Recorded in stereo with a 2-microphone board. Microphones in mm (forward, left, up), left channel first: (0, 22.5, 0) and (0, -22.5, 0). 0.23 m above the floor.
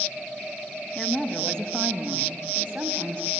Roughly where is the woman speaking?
Left.